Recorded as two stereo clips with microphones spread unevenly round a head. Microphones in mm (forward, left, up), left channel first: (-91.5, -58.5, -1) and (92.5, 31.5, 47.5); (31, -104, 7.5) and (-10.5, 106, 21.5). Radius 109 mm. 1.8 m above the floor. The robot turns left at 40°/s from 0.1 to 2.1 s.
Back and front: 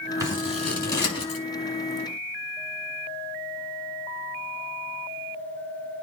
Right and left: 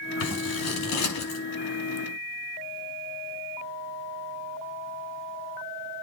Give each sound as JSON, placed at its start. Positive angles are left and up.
{"t": 0.2, "sound": "scissors", "azimuth_deg": -45, "distance_m": 5.0}